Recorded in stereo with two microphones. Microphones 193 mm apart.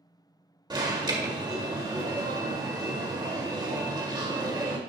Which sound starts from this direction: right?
An alarm, at 0.7 s.